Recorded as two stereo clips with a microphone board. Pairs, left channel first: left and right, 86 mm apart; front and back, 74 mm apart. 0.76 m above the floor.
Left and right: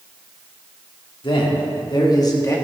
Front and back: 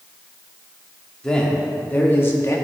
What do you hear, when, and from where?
1.2 s a man speaking: 80° left, 1.6 m; by 2.6 s 40° left, 1.1 m